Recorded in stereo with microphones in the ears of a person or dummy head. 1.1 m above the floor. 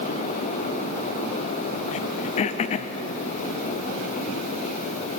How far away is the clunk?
I don't hear a clunk.